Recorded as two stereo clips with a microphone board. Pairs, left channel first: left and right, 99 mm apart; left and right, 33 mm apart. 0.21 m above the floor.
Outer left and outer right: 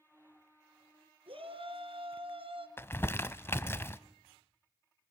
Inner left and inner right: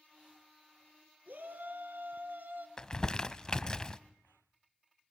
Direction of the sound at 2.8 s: 25° left (ahead or behind).